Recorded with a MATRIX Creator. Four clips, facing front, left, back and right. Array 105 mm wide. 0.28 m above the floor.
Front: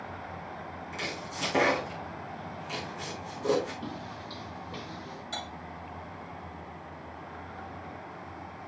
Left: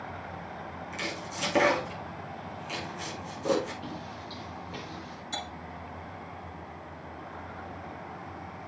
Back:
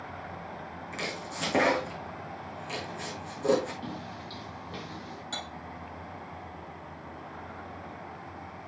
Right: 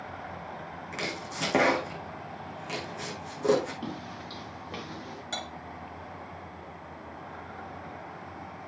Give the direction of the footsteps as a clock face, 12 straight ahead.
3 o'clock.